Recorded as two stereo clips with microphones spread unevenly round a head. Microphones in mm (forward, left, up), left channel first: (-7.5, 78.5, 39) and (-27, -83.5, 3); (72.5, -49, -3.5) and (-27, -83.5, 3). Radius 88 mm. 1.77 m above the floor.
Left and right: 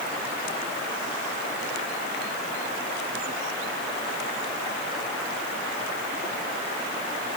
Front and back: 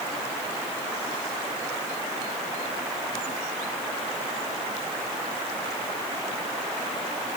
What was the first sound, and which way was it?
Only background noise.